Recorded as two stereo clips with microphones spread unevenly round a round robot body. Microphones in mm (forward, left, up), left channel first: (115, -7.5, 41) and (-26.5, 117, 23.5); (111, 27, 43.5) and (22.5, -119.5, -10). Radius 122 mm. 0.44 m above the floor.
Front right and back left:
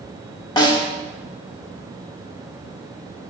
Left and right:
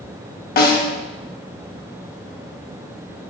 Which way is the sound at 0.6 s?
30° left.